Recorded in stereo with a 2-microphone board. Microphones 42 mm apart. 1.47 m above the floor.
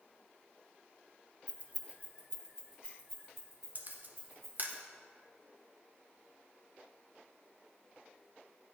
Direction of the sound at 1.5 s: 30° right (ahead or behind).